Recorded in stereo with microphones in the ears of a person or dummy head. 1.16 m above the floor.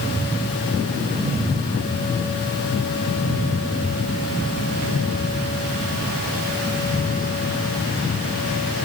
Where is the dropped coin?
I don't hear a dropped coin.